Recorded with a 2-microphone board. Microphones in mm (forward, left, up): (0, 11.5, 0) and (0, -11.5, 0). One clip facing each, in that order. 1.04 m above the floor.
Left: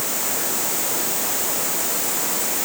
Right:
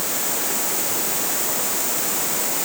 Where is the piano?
No piano in this recording.